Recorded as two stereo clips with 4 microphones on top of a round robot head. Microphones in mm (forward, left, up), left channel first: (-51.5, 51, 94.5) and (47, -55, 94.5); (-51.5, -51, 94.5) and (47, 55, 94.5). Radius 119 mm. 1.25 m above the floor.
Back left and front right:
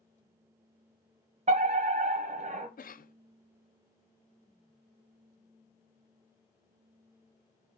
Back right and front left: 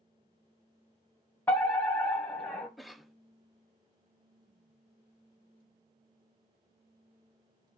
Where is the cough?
135° left, 0.8 m.